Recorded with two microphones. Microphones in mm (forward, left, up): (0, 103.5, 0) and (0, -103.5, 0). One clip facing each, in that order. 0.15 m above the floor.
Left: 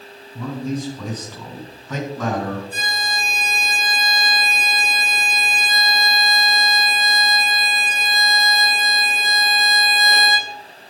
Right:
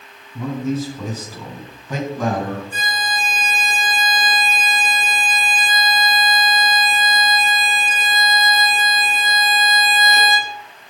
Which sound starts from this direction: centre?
A man speaking, at 0.3 s.